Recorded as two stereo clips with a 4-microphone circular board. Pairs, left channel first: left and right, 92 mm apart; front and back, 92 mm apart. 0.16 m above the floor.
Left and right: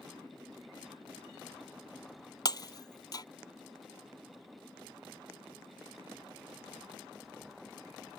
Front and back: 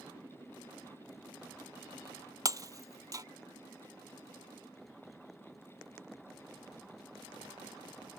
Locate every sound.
2.5 s breaking glass: 130° left